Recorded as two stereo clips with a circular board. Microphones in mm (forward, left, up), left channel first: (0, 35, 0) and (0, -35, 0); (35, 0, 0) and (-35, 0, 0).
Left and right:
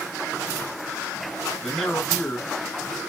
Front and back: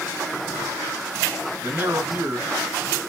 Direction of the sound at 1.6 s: 175° left.